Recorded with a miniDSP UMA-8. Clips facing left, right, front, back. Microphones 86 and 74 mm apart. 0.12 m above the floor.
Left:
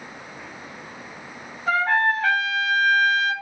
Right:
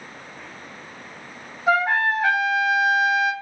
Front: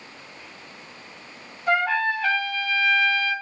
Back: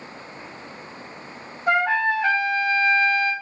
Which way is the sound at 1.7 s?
155° right.